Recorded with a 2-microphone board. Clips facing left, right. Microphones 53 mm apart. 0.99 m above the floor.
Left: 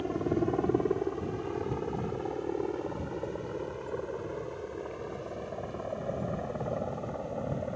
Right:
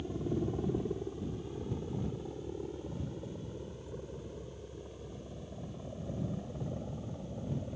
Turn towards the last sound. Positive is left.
turn(degrees=70)  # may be behind; listen again after turning